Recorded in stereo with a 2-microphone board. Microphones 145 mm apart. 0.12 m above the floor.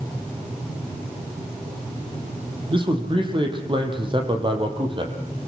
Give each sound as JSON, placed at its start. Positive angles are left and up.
{"t": 2.7, "sound": "a man speaking", "side_deg": -35, "distance_m": 3.5}